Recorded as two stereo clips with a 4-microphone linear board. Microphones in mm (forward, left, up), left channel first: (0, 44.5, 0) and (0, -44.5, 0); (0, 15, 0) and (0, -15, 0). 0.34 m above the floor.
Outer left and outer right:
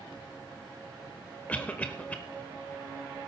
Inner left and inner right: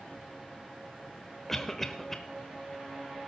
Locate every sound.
1.5 s a cough: 15° left (ahead or behind), 0.8 m